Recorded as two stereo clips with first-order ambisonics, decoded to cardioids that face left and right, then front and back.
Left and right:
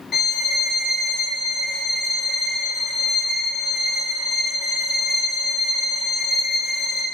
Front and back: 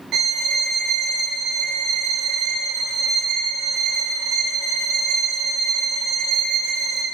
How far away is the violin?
About 0.5 m.